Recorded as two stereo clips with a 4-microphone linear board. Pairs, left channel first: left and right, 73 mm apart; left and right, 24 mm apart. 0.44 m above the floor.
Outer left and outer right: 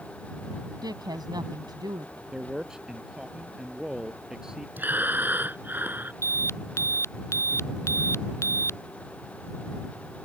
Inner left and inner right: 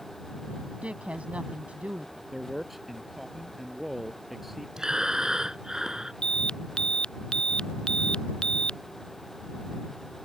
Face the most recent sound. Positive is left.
turn(degrees=40)  # may be behind; listen again after turning